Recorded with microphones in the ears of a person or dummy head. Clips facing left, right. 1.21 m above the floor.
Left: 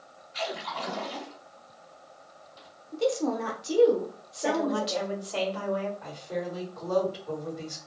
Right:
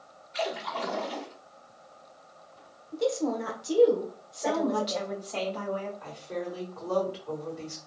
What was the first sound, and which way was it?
A splash, 55° right (ahead or behind).